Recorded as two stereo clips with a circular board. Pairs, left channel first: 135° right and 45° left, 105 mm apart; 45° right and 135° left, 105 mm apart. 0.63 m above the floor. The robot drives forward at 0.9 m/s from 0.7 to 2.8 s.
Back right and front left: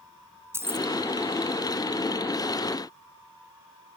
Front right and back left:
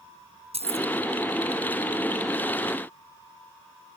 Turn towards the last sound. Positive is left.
turn(degrees=130)